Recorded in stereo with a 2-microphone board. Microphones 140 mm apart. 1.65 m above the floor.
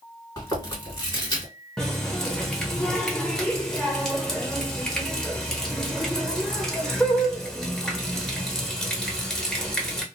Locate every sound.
0.4 s chewing: 20° left (ahead or behind), 2 m
1.8 s a running tap: 5° left (ahead or behind), 0.9 m